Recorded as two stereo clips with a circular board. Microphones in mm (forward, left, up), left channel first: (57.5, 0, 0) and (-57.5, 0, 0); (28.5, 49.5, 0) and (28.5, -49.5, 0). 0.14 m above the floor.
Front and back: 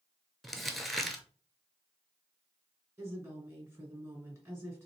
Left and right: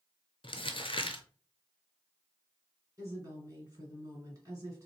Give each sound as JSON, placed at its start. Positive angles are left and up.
{"t": 0.4, "sound": "crumpling", "azimuth_deg": 90, "distance_m": 0.6}
{"t": 3.0, "sound": "a woman speaking", "azimuth_deg": -125, "distance_m": 2.0}